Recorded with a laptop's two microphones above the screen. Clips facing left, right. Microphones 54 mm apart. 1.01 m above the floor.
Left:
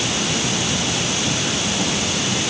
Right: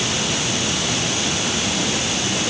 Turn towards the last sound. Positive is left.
No sound to turn to.